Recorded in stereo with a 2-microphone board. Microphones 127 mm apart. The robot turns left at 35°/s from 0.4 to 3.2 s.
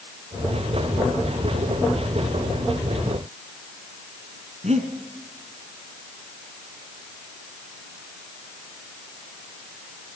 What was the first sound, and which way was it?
Breathing, 60° right (ahead or behind).